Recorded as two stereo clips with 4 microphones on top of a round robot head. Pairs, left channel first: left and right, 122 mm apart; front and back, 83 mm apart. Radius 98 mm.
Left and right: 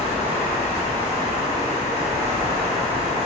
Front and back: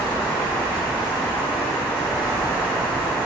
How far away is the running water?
About 1.9 m.